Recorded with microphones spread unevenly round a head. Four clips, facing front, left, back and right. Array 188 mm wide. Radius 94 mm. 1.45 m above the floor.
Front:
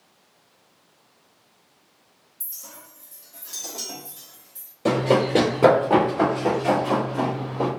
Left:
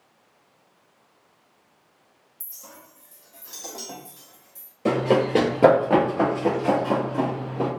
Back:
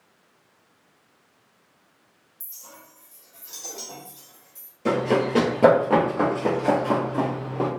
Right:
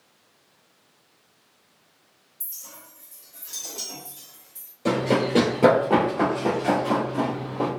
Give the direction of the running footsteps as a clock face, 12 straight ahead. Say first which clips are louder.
Left 2 dB, front 2 dB; 10 o'clock.